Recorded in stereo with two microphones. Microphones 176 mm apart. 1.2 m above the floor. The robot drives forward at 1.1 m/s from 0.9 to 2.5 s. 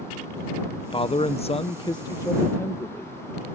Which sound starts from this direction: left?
A man speaking, at 0.9 s.